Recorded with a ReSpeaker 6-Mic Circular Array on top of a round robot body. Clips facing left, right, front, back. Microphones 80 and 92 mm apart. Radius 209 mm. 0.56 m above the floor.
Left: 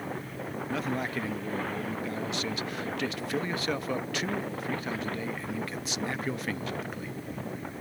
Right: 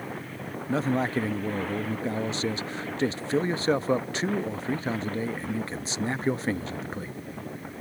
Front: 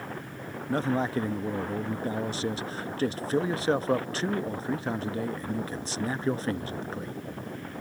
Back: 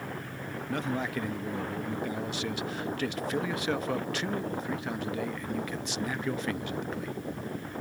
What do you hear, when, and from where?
0.7 s a man speaking: 40° right